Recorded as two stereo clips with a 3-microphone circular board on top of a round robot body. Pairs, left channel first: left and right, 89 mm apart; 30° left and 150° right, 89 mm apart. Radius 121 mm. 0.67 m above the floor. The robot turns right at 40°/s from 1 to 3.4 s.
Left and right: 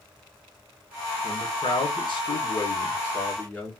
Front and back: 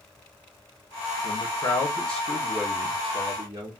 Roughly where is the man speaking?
Left.